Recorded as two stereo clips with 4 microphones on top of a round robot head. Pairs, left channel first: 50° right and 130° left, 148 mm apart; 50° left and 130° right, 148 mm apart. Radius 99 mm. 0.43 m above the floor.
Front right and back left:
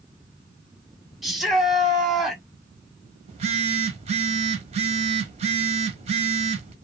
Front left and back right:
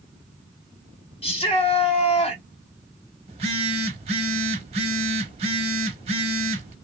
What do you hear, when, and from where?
1.2 s a shout: 40° left, 1.5 m
3.3 s a phone buzzing: straight behind, 0.9 m